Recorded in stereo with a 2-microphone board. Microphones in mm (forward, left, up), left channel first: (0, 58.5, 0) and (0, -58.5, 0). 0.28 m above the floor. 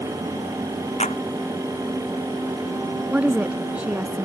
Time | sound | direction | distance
1.0 | a clap | 75° left (ahead or behind) | ?
3.1 | a woman speaking | 10° right (ahead or behind) | ?